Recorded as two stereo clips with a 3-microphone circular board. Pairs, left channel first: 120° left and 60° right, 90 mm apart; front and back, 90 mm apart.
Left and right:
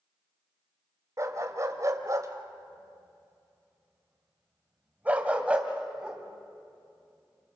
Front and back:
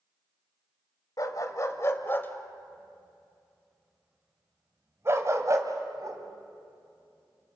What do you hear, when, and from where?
1.2 s a dog barking: 20° right, 1.7 m; by 7.6 s 145° right, 3 m